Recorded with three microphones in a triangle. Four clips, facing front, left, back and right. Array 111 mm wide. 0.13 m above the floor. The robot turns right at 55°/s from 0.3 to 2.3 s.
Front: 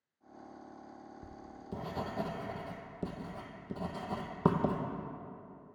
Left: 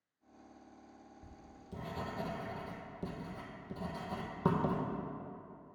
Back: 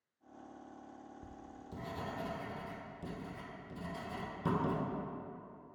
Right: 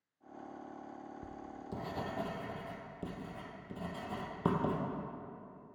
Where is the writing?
70° right, 1.0 m; by 4.8 s 10° right, 1.0 m.